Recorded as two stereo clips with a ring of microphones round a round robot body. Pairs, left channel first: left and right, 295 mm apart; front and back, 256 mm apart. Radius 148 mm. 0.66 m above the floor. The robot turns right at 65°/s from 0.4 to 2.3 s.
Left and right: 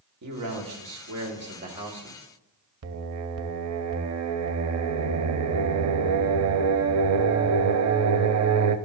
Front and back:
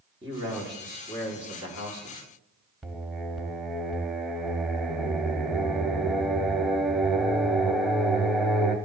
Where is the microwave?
No microwave in this recording.